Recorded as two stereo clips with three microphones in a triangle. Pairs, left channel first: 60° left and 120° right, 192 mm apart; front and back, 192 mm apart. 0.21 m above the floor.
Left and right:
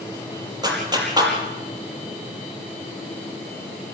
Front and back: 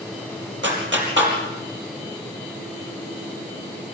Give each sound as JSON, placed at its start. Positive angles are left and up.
{"t": 0.6, "sound": "a clap", "azimuth_deg": 170, "distance_m": 5.0}